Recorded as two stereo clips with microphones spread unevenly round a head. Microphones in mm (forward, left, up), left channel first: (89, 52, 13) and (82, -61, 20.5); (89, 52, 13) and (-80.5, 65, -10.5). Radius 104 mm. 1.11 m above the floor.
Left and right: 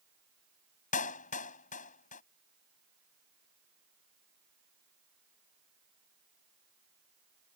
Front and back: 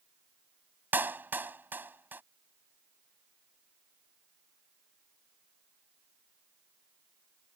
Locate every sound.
0.9 s a clap: 95° left